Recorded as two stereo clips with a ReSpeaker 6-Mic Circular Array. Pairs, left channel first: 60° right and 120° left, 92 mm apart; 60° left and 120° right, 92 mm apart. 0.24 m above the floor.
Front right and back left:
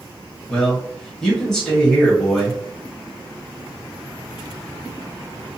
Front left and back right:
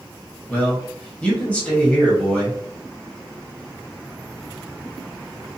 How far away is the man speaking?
About 1.1 m.